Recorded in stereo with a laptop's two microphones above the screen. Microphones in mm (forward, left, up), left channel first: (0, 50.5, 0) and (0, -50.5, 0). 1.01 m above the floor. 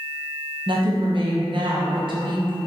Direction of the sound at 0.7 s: 55° right (ahead or behind).